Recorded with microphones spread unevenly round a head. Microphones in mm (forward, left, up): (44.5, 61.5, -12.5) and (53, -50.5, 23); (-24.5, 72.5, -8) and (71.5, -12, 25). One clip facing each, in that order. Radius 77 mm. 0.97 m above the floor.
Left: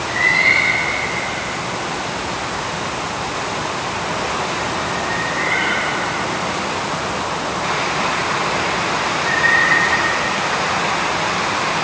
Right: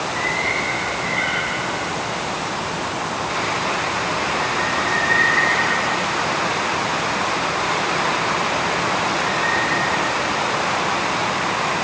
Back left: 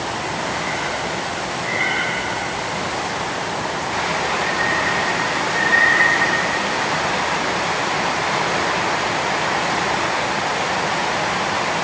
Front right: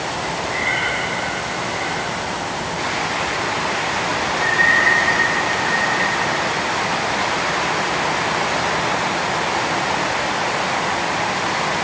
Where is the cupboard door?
I don't hear a cupboard door.